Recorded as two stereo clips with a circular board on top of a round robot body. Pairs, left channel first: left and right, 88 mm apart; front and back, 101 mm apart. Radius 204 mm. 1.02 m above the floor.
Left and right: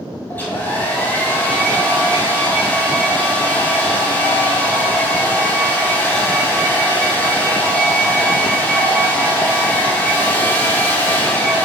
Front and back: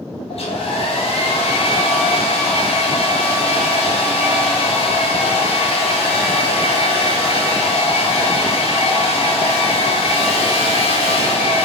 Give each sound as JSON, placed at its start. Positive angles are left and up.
{"t": 0.3, "sound": "a hair dryer", "azimuth_deg": 20, "distance_m": 2.0}